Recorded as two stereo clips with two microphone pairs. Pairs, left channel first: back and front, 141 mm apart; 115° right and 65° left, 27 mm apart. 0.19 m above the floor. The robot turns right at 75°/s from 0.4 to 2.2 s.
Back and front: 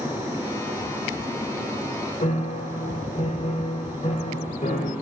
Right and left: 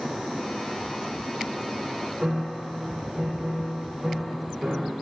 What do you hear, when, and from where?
2.2 s a piano: 145° left, 5 m